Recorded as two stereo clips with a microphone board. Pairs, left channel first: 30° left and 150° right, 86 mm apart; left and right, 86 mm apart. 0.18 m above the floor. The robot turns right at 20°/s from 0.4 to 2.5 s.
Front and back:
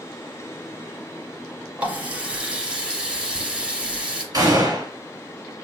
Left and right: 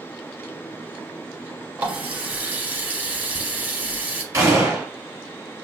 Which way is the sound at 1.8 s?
115° right.